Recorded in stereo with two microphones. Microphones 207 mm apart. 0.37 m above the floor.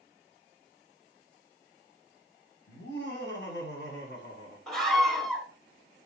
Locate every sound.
2.7 s laughter: 55° left (ahead or behind), 2.0 m
4.7 s a scream: centre (ahead or behind), 1.5 m